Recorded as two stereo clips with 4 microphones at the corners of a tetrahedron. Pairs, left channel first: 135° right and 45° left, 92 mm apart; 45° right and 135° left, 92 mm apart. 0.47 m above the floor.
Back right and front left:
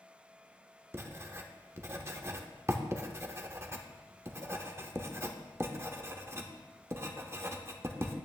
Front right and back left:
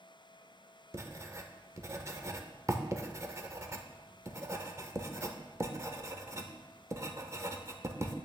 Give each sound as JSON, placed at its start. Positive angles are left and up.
{"t": 0.9, "sound": "writing", "azimuth_deg": 95, "distance_m": 0.8}